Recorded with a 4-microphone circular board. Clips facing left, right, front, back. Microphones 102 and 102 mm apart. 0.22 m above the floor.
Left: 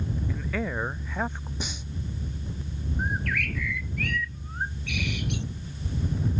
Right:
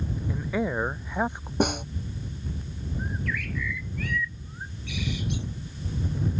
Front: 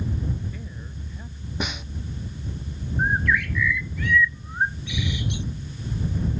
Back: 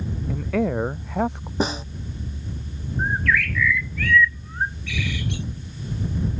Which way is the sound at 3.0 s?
70° left.